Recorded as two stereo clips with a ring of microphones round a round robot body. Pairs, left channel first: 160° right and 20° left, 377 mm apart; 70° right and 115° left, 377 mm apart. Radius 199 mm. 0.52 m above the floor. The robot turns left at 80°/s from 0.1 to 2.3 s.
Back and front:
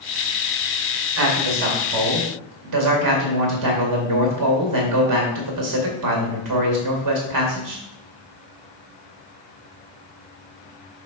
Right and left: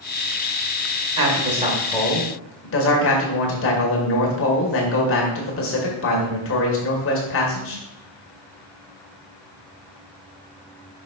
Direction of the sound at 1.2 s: 80° left.